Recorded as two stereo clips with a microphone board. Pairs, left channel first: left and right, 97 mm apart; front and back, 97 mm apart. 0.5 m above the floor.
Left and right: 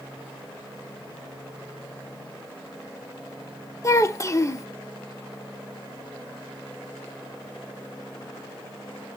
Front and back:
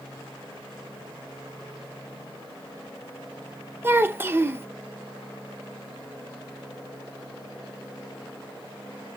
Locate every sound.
3.8 s a child speaking: 130° left, 0.6 m